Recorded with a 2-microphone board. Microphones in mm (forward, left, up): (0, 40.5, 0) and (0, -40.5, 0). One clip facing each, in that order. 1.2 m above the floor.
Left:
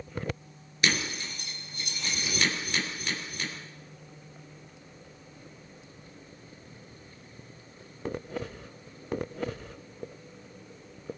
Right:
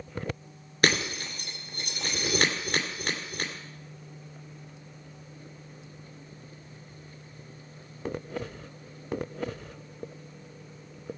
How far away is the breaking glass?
About 2.5 m.